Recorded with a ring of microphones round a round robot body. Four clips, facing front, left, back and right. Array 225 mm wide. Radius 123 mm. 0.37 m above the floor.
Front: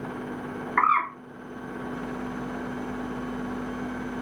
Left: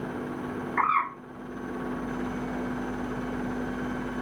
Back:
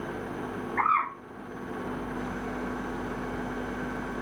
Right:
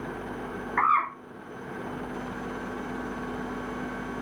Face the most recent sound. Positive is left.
turn(degrees=-10)